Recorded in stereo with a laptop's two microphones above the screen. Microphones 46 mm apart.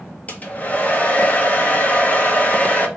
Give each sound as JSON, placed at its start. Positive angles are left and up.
{"t": 0.3, "sound": "a hair dryer", "side_deg": 35, "distance_m": 0.9}